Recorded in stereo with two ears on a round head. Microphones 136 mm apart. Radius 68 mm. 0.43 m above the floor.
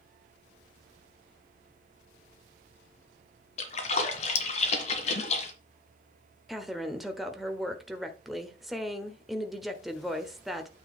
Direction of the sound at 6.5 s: Centre (ahead or behind).